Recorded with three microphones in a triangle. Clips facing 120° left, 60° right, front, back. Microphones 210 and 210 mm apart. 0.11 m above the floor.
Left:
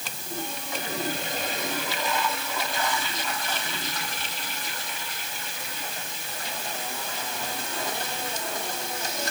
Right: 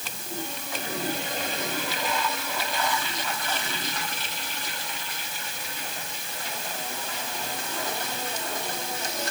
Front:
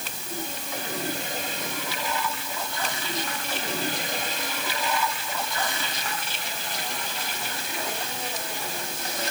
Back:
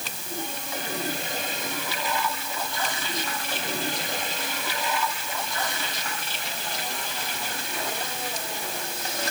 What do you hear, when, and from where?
Only background noise.